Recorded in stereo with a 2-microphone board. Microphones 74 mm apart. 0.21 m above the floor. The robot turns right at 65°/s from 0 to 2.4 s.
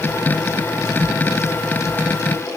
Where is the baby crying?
I don't hear a baby crying.